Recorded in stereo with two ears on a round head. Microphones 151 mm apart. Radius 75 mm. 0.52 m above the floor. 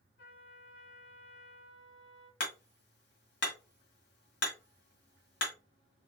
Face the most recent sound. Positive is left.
turn(degrees=70)  # may be behind; listen again after turning